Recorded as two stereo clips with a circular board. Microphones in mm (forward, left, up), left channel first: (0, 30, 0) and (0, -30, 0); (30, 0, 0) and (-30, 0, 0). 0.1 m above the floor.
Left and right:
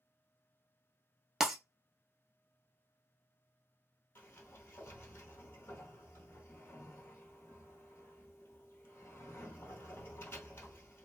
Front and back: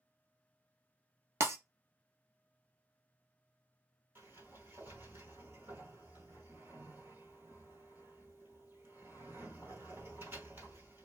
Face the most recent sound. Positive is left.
turn(degrees=135)